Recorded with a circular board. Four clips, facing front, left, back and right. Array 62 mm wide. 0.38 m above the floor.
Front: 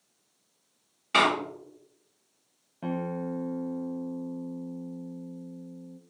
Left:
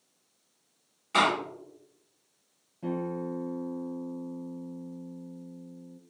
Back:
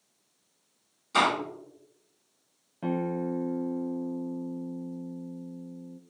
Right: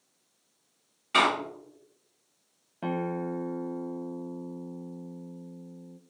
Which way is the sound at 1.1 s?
20° right.